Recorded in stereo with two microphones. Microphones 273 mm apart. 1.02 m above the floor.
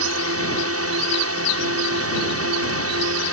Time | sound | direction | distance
0.0 | a drone | 60° right (ahead or behind) | ?